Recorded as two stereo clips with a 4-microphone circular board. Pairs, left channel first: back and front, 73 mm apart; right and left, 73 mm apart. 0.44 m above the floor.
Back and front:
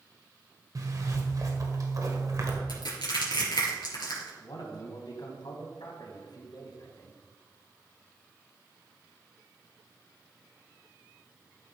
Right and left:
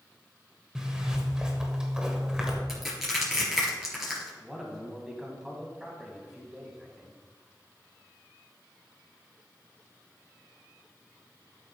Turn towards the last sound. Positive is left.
turn(degrees=175)